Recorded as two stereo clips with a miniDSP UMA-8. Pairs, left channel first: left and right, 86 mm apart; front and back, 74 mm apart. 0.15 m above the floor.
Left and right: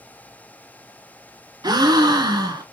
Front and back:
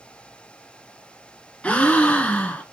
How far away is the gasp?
About 0.5 m.